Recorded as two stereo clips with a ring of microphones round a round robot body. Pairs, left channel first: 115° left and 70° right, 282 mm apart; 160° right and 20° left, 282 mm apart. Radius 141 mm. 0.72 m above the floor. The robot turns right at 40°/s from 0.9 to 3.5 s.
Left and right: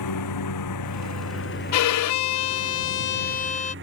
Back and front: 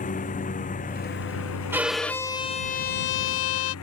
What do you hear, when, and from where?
0.0 s a lawn mower: 140° left; by 3.9 s 115° right
1.7 s a violin: 105° left; by 3.8 s 175° left